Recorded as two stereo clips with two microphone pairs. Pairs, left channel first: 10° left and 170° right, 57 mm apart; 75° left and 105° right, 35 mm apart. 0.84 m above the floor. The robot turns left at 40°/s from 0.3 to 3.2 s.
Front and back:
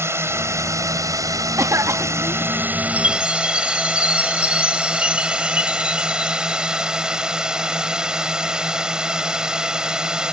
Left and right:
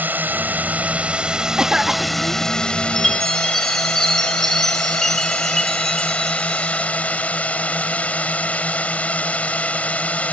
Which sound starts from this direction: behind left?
A chime, at 3.0 s.